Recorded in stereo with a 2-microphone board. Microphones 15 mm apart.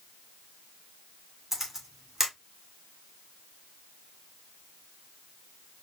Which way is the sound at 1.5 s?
20° right (ahead or behind).